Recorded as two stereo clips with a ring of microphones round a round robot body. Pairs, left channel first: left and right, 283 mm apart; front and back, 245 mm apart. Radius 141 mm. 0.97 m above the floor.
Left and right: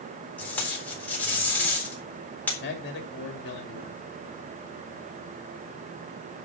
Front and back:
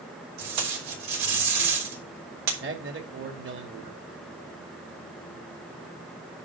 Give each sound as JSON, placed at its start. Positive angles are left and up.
{"t": 0.4, "sound": "tape being pulled", "azimuth_deg": 175, "distance_m": 3.5}
{"t": 2.6, "sound": "a man speaking", "azimuth_deg": 140, "distance_m": 2.5}